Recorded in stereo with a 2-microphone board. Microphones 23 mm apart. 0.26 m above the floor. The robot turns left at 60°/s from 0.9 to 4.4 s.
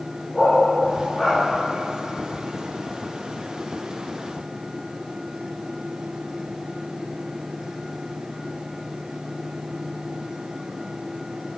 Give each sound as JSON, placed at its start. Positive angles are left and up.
{"t": 0.3, "sound": "a dog barking", "side_deg": 20, "distance_m": 5.5}